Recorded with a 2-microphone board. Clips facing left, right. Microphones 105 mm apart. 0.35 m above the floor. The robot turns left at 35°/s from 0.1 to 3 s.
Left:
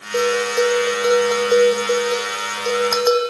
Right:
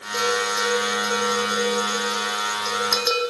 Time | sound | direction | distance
0.1 | a bell | 140° left | 4 m